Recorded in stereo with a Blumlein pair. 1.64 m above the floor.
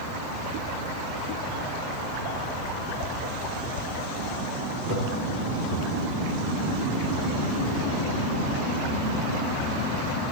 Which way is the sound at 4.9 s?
30° left.